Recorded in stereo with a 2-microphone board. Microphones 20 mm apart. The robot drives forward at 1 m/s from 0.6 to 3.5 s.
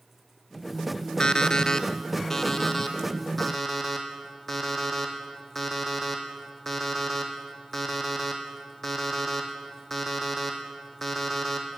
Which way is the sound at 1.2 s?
35° left (ahead or behind).